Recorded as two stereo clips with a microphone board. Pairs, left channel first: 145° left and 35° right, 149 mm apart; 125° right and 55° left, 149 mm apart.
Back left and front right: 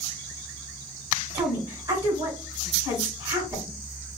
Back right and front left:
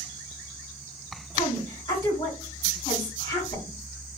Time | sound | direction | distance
1.3 | a woman speaking | 90° right | 1.4 m